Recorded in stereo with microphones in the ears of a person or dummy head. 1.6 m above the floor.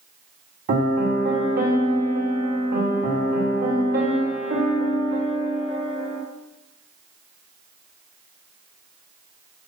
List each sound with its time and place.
0.7 s a piano: 50° right (ahead or behind), 3 m